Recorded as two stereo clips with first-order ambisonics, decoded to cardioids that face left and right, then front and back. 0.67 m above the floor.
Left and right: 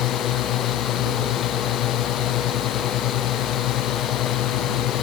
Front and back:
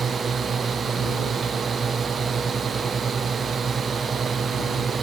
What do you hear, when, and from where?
0.0 s a drone: 110° left